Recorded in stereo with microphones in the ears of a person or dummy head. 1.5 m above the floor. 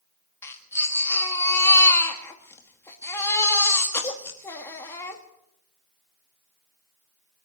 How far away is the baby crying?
About 1.7 m.